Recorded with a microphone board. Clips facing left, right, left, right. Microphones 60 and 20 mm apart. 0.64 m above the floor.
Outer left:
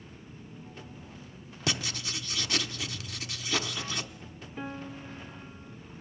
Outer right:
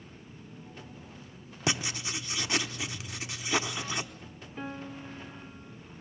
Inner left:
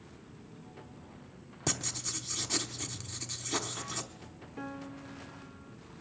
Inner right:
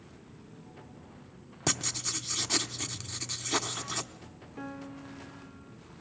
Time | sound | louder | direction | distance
1.7 | writing | outer right 1 dB, inner right 3 dB | 20° right (ahead or behind) | 0.9 m
4.6 | a piano | even, inner right 1 dB | centre (ahead or behind) | 1.5 m